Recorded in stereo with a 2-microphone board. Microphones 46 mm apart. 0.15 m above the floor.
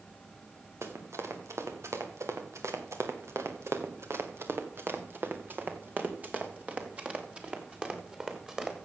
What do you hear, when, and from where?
0.8 s running footsteps: 75° right (ahead or behind), 2.5 m; by 8.7 s 15° right (ahead or behind), 3.5 m